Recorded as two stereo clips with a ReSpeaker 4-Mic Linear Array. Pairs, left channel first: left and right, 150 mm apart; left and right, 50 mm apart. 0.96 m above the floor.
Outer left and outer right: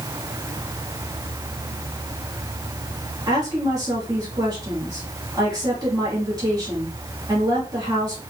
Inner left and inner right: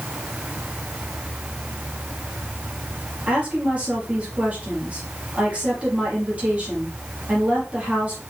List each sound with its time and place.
3.3 s a woman speaking: 25° right (ahead or behind), 2 m